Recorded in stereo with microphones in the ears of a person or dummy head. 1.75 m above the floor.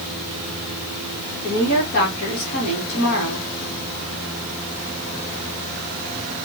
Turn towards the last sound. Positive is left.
turn(degrees=60)  # may be behind; listen again after turning